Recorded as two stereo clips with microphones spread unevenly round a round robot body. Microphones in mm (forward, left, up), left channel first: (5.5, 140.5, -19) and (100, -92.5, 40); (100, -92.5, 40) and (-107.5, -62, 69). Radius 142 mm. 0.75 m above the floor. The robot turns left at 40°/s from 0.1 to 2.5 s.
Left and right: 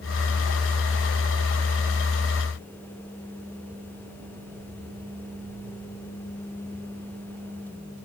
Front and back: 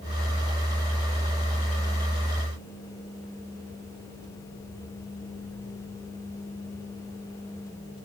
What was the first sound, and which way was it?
Only background noise.